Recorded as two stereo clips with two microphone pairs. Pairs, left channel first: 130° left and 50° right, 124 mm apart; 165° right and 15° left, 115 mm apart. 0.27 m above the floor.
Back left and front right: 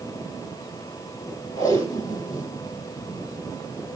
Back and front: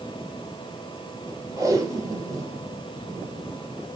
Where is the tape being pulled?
70° left, 2.5 m.